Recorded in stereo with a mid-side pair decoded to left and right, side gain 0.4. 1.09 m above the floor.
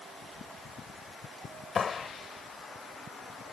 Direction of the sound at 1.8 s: 50° left.